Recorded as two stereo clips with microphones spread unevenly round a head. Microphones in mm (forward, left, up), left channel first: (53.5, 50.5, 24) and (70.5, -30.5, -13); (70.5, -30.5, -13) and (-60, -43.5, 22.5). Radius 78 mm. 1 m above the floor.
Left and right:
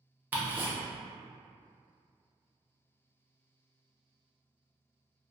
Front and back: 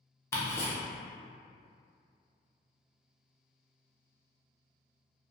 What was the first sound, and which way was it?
Ticking, 45° right.